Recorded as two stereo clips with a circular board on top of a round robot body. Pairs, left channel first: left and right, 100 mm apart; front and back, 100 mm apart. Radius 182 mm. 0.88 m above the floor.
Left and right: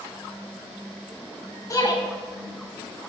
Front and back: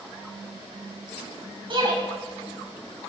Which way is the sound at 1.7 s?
145° left.